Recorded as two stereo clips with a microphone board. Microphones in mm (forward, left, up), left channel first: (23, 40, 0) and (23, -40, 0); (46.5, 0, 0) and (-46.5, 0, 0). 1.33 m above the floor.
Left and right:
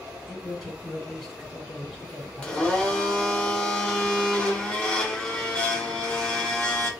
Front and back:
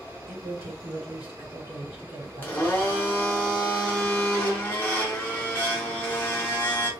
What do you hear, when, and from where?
0.3 s a man speaking: 170° left, 1.3 m
2.4 s a blender: 35° left, 0.9 m